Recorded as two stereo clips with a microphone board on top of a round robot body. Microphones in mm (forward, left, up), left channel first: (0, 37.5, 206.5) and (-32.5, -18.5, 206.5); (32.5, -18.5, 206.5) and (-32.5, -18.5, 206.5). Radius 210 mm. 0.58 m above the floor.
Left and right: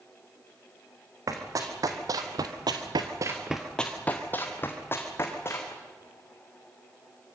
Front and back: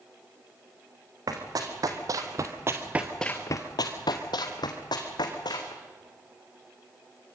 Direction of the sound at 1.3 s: 155° right.